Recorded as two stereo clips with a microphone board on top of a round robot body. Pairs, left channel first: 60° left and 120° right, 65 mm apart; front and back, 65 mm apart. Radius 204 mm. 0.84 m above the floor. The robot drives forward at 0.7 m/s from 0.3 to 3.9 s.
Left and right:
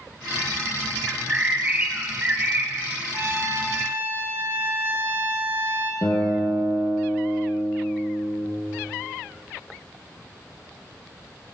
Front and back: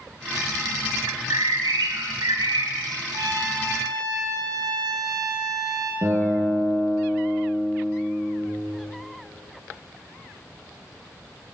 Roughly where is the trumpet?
Behind.